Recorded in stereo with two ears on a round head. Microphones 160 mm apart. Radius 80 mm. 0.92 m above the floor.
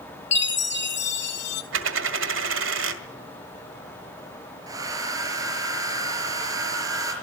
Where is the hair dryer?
20° right (ahead or behind), 4.5 m.